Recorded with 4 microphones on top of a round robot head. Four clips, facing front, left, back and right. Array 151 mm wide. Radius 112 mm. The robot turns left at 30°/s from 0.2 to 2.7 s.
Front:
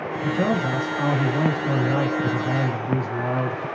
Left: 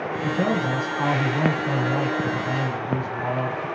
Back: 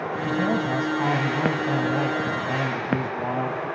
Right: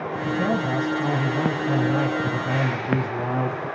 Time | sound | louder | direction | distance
0.2 | a man speaking | even, front 2 dB | 40° left | 3.5 m